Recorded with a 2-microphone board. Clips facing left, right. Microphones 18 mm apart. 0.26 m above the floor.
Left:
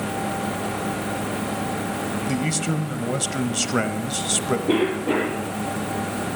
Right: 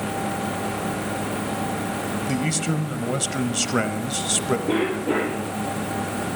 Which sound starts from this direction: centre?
A man speaking, at 2.3 s.